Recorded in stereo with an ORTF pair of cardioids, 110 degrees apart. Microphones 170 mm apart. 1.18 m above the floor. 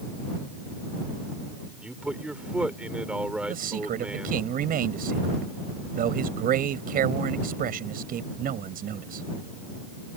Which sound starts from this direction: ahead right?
A man speaking, at 3.5 s.